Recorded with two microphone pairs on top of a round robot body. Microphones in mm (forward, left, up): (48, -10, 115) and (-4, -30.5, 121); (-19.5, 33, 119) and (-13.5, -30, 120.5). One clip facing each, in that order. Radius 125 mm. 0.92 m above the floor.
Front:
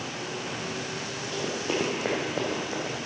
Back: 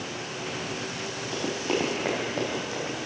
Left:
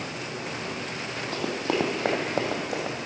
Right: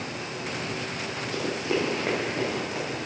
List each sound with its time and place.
1.3 s running footsteps: 125° left, 1.2 m; by 3.1 s 90° left, 2 m